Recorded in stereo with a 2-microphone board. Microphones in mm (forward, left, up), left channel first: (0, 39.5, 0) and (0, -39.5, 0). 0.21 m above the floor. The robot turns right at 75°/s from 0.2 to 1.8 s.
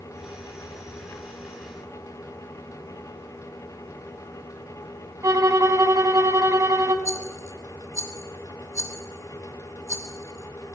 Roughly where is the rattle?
Right.